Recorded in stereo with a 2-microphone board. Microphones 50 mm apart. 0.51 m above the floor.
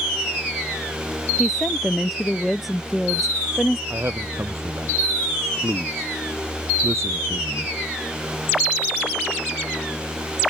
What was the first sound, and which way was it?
A woman speaking, centre (ahead or behind).